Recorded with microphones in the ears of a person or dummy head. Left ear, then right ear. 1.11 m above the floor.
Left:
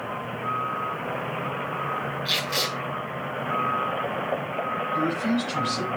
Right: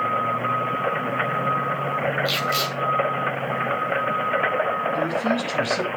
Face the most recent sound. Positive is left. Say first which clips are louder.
# right 3 dB
turn(degrees=-20)  # may be behind; listen again after turning